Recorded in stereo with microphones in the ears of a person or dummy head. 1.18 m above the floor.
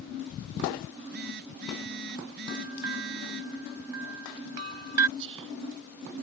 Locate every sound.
0.9 s a phone buzzing: 50° right (ahead or behind)
2.5 s a bell: 80° right
5.2 s whispering: 65° right (ahead or behind)